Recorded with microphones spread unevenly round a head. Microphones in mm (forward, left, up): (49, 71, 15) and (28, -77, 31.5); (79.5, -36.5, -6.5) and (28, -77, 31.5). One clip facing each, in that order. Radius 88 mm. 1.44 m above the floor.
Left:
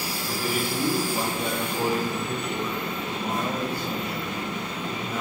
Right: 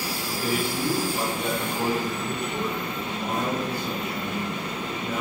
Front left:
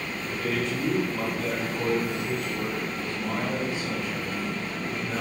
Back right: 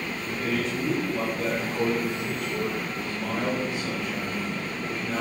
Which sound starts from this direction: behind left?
A man speaking, at 0.2 s.